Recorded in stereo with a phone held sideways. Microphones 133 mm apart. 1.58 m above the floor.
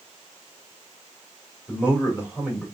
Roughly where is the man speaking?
Centre.